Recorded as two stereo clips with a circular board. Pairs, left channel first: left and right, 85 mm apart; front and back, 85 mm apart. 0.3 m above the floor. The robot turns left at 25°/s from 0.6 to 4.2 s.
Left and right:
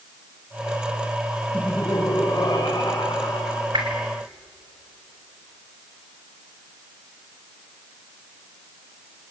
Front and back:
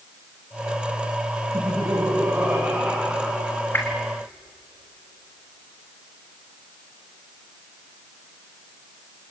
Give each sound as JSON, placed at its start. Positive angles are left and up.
{"t": 1.5, "sound": "laughter", "azimuth_deg": 135, "distance_m": 3.0}
{"t": 3.7, "sound": "a whoosh", "azimuth_deg": -65, "distance_m": 4.0}